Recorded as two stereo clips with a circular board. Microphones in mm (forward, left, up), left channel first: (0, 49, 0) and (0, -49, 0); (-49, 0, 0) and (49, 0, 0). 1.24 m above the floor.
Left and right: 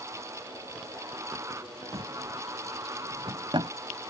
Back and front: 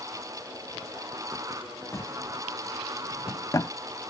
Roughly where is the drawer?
Behind right.